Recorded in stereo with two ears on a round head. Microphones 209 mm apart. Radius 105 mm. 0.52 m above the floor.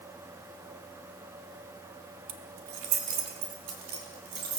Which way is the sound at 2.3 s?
70° right (ahead or behind).